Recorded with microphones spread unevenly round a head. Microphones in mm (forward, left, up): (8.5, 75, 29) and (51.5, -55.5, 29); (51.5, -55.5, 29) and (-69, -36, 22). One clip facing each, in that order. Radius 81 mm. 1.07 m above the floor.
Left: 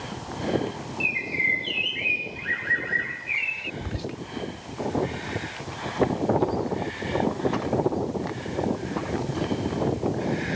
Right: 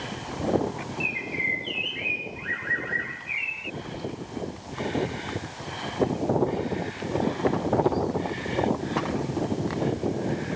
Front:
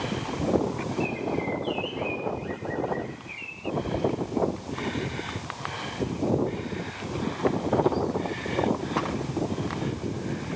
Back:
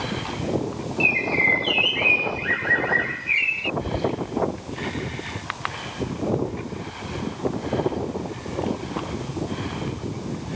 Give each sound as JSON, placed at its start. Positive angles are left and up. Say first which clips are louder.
{"t": 1.0, "sound": "a bird", "louder": "even, back 3 dB", "azimuth_deg": 170}
{"t": 3.8, "sound": "whispering", "louder": "left 1 dB, back 1 dB", "azimuth_deg": 100}